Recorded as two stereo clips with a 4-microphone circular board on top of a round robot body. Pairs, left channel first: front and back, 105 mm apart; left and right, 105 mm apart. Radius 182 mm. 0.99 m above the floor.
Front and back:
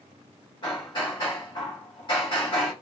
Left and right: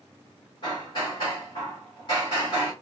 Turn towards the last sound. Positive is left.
turn(degrees=45)